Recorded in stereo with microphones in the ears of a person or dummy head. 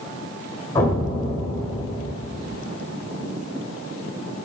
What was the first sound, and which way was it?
An explosion, 10° left (ahead or behind).